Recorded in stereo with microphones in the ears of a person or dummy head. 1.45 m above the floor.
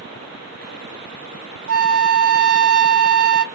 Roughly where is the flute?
Right.